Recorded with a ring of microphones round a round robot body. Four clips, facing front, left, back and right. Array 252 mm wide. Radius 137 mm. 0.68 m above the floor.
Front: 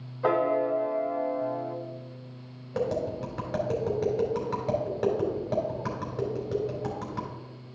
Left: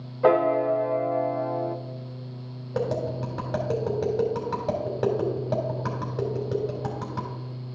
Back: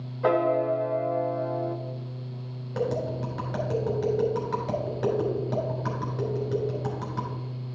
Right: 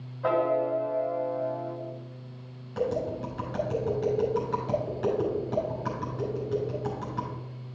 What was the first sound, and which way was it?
A piano, 95° left.